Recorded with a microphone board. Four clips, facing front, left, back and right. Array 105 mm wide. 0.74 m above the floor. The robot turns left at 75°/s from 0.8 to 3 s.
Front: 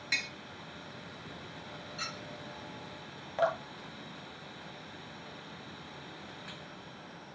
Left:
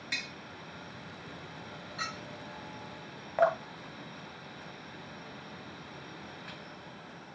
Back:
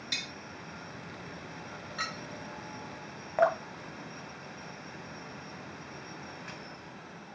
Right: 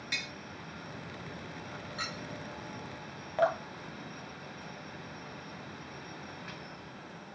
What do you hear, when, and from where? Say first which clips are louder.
0.1 s tapping: even, front 6 dB; 5° left, 0.6 m
2.0 s a clink: left 2 dB, back 5 dB; 170° right, 0.8 m; by 2.2 s 175° left, 0.8 m
3.4 s dripping: left 2 dB, back 4 dB; 150° left, 0.6 m